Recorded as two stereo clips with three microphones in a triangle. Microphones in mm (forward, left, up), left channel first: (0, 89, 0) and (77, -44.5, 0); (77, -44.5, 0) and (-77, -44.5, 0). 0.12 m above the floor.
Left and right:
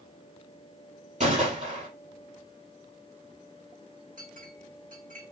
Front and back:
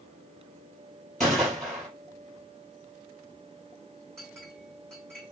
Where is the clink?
85° right, 3.5 m.